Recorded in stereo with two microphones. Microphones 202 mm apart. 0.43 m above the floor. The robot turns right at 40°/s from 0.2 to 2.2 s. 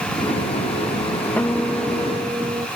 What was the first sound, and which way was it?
A guitar, 170° left.